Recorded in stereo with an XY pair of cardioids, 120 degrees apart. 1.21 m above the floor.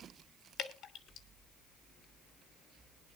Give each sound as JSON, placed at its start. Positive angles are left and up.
{"t": 0.6, "sound": "dripping", "azimuth_deg": 60, "distance_m": 2.5}